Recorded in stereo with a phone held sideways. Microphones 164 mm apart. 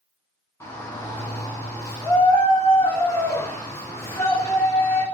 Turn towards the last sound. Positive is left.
turn(degrees=20)  # may be behind; listen again after turning